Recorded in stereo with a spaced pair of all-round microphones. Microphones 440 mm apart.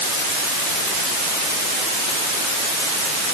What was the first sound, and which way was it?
Only background noise.